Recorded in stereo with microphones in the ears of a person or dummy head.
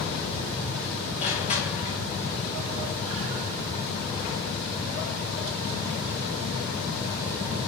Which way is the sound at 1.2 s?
40° left (ahead or behind).